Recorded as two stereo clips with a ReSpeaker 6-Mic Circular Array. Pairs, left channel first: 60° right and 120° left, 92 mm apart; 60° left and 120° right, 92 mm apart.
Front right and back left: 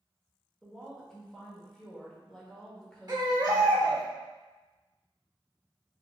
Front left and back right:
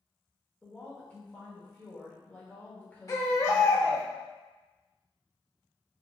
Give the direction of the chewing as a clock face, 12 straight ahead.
No chewing in this recording.